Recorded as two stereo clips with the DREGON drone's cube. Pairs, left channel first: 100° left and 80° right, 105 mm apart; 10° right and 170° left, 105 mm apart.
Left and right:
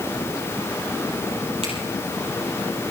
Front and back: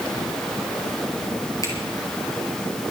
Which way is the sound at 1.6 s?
65° right.